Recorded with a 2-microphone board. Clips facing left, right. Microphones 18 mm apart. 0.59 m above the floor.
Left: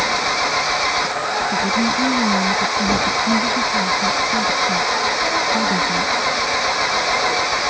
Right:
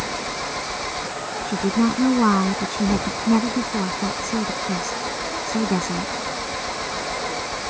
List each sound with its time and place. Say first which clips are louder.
0.0 s an engine running: left 9 dB; 50° left (ahead or behind)
1.4 s a woman speaking: even; 65° right (ahead or behind)